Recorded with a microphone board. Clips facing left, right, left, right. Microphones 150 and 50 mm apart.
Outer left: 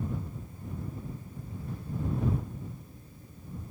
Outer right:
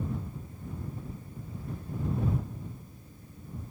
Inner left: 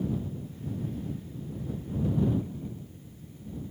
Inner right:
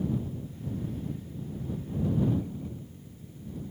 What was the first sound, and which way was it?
Only background noise.